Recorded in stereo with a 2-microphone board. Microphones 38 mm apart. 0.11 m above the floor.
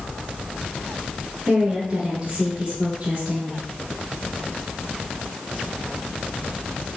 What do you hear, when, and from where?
1.5 s a woman speaking: 25° right (ahead or behind), 1.5 m; by 3.6 s 40° right (ahead or behind), 1.8 m